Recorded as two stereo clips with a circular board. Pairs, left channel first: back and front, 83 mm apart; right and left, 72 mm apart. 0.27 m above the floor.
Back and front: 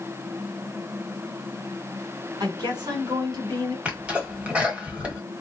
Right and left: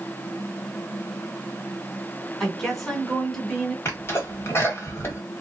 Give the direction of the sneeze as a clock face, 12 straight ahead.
2 o'clock.